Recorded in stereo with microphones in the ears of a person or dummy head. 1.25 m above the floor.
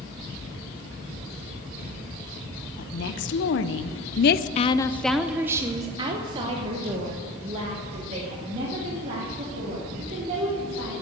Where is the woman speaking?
60° left (ahead or behind), 1.1 m; by 11.0 s 40° right (ahead or behind), 4 m.